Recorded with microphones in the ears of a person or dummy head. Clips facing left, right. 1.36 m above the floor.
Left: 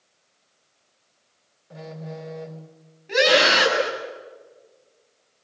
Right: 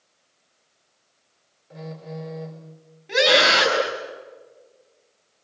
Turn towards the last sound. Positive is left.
turn(degrees=-10)  # may be behind; listen again after turning